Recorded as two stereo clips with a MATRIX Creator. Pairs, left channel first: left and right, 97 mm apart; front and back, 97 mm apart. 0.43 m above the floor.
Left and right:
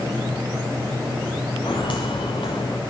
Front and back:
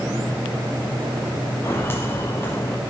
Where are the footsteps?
65° left, 3.5 m.